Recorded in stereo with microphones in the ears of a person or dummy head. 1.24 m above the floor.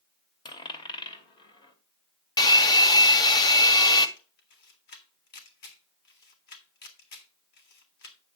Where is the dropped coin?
30° left (ahead or behind), 2 m.